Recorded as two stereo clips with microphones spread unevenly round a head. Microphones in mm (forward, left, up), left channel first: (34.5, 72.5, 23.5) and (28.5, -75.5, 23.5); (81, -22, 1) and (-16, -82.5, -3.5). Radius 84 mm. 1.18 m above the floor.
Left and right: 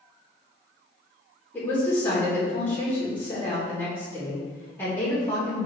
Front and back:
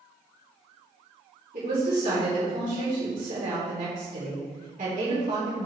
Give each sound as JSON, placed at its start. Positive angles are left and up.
{"t": 1.5, "sound": "a woman speaking", "azimuth_deg": 165, "distance_m": 3.5}